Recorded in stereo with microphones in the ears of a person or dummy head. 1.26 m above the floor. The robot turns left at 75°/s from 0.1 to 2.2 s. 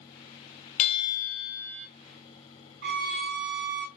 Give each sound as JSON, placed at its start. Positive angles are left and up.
{"t": 0.8, "sound": "a bell", "azimuth_deg": 40, "distance_m": 0.7}
{"t": 2.8, "sound": "a violin", "side_deg": -55, "distance_m": 0.7}